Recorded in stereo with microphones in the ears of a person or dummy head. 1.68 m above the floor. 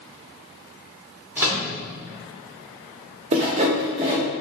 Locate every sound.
1.4 s a microwave: 10° right (ahead or behind), 0.8 m
3.3 s sawing: 35° right (ahead or behind), 0.7 m